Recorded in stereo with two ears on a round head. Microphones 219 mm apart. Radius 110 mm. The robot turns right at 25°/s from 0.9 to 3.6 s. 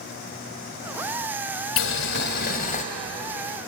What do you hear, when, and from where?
1.8 s boiling: 60° left (ahead or behind), 2.5 m; by 2.8 s 35° left (ahead or behind), 2.5 m